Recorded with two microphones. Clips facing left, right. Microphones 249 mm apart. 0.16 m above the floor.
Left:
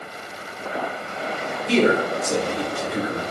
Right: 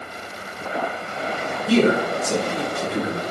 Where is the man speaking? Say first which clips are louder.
Right 1 dB; 5° right (ahead or behind), 1.1 m; by 3.2 s 30° right (ahead or behind), 1.1 m.